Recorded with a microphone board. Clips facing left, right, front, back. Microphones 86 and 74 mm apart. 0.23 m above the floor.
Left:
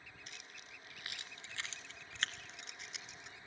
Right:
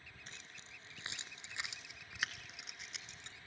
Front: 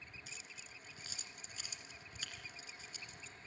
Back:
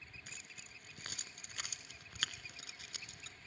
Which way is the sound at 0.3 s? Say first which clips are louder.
Right 1 dB, even; 145° right.